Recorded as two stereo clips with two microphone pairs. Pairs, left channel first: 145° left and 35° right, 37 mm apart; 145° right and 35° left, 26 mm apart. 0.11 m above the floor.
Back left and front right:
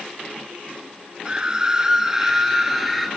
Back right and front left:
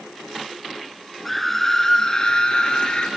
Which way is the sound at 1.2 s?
60° right.